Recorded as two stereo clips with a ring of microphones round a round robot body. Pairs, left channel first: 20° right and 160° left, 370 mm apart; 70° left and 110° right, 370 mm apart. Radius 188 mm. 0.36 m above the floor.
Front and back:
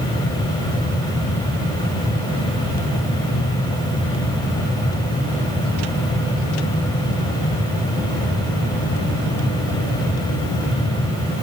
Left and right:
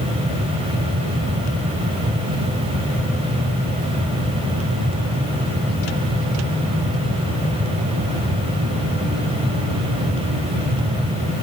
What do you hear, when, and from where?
Only background noise.